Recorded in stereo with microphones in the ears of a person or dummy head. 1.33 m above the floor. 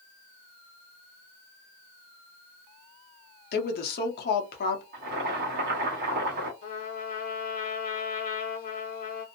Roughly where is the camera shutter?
I don't hear a camera shutter.